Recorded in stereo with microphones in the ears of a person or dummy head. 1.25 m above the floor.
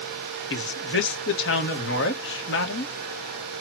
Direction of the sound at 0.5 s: 65° left (ahead or behind).